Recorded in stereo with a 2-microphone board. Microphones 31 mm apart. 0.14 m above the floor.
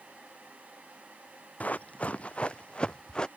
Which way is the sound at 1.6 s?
50° left (ahead or behind).